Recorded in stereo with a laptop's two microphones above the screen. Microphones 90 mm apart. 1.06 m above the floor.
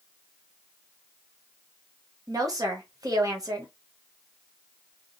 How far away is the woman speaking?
About 0.8 m.